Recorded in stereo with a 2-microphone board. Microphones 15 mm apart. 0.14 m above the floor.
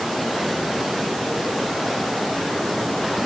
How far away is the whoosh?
I don't hear a whoosh.